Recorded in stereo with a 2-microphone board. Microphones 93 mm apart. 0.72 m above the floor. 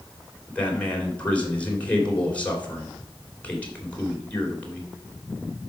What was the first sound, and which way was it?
A man speaking, 15° left (ahead or behind).